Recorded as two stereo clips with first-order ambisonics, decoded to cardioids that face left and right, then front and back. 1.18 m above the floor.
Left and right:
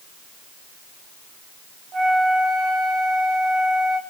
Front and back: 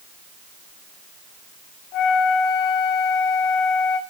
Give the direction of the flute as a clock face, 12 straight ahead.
1 o'clock.